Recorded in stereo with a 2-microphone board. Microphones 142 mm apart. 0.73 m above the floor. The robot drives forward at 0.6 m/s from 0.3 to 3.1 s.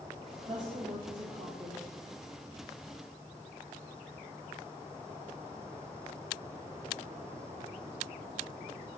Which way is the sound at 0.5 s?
65° right (ahead or behind).